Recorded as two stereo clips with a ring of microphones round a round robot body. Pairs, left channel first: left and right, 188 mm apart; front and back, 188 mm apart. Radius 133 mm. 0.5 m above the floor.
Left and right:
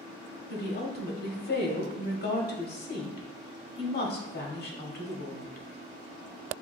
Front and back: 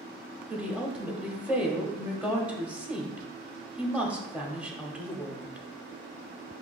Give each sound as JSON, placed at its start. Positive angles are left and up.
{"t": 0.5, "sound": "a woman speaking", "azimuth_deg": 100, "distance_m": 1.0}